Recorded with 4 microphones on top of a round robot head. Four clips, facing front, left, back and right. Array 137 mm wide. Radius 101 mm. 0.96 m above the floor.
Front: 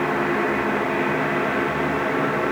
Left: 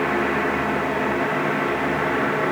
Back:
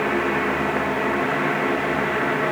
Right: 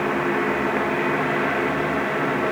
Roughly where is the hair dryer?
No hair dryer in this recording.